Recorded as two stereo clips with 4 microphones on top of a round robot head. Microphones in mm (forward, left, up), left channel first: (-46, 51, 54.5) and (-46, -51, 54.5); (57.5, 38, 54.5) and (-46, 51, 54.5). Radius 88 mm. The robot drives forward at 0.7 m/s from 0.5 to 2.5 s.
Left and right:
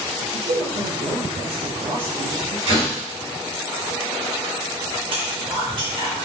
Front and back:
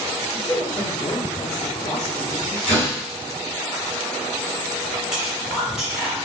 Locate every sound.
0.3 s a man speaking: 60° right, 2.5 m; by 2.6 s 100° right, 2.5 m
2.7 s a door slam: 90° right, 2.5 m
5.1 s whispering: 105° right, 2.5 m